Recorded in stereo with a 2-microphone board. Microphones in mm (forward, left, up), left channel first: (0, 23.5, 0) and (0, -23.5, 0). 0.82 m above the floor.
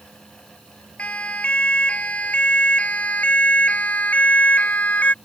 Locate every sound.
1.0 s a siren: 30° left (ahead or behind); by 5.2 s 35° left (ahead or behind)